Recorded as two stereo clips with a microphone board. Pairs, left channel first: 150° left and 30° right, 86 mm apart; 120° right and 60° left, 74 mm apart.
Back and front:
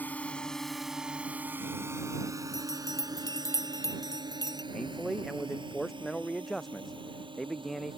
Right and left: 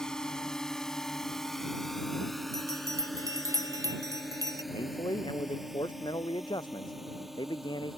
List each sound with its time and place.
0.0 s a drone: 175° left; by 8.0 s 25° right
2.5 s a bell: 100° left
4.7 s a man speaking: 120° right